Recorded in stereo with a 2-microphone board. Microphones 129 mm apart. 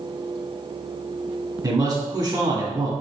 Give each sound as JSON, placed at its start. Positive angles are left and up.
{"t": 1.6, "sound": "a man speaking", "side_deg": -25, "distance_m": 1.5}